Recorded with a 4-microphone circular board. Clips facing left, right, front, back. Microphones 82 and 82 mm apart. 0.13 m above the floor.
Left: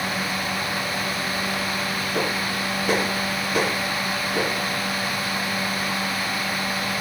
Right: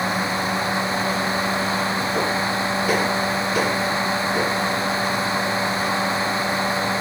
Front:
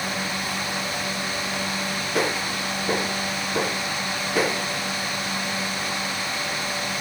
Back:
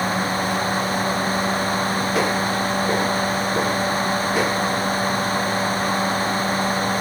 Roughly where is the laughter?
No laughter in this recording.